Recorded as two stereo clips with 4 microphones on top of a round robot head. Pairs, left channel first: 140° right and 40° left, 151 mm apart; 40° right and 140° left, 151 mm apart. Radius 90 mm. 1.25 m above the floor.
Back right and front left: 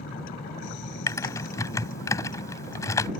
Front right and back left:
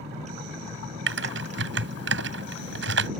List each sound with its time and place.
0.0 s a vehicle: 170° right; by 3.2 s straight behind
1.1 s typing on a keyboard: 150° left